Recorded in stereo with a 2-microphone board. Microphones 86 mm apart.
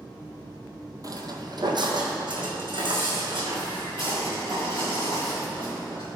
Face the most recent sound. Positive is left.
turn(degrees=-80)